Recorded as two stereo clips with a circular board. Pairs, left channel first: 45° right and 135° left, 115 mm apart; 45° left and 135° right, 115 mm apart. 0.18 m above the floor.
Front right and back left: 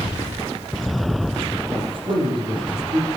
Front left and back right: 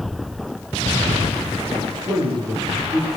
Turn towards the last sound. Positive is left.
turn(degrees=175)